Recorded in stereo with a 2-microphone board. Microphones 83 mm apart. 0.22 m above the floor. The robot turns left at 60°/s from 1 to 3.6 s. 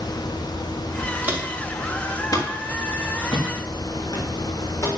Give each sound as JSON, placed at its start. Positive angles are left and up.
{"t": 1.2, "sound": "footsteps", "side_deg": -20, "distance_m": 5.5}